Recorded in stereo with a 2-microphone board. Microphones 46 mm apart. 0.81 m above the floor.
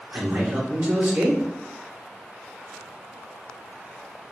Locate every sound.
0.1 s a man speaking: 50° right (ahead or behind), 1.6 m